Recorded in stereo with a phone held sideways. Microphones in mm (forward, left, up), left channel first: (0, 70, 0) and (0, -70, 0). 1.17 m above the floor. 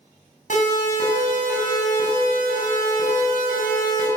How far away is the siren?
About 7.5 m.